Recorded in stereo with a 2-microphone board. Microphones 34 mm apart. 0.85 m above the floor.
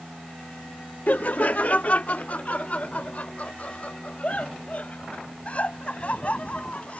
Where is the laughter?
55° left (ahead or behind); by 7.0 s 40° left (ahead or behind).